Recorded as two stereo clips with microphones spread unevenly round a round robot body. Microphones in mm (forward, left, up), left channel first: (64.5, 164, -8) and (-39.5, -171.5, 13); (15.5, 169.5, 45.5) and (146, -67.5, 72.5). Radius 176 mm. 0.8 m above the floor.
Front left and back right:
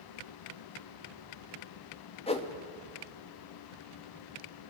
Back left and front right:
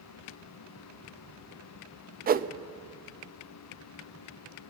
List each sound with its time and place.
2.3 s a whoosh: straight ahead, 0.6 m